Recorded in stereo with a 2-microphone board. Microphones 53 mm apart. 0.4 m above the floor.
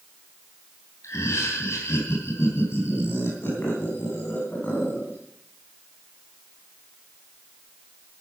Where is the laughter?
65° left (ahead or behind), 3 m; by 5.2 s 35° left (ahead or behind), 4 m.